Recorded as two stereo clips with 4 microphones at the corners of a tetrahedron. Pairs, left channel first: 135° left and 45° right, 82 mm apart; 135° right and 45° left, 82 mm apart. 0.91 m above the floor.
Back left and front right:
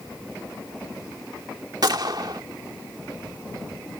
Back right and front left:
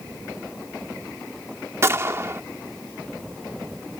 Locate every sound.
1.8 s a gunshot: 15° right